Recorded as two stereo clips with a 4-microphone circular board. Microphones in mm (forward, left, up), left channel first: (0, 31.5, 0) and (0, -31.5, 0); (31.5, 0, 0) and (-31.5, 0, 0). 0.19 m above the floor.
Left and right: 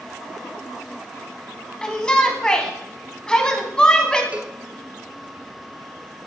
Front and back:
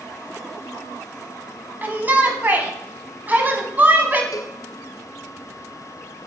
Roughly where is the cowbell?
Ahead.